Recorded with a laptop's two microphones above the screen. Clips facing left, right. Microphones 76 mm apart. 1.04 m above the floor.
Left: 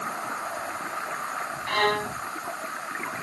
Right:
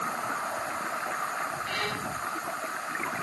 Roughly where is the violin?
Left.